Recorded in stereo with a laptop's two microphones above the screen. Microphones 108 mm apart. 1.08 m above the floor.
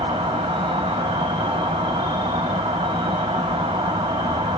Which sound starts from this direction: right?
An insect, at 0.0 s.